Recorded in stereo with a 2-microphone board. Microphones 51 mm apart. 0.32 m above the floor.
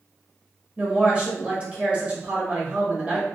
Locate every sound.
0.8 s a woman speaking: 25° right (ahead or behind), 1.0 m